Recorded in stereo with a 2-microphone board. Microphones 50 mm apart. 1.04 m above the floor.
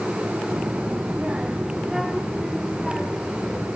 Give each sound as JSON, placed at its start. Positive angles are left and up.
{"t": 0.5, "sound": "a child speaking", "side_deg": -60, "distance_m": 1.6}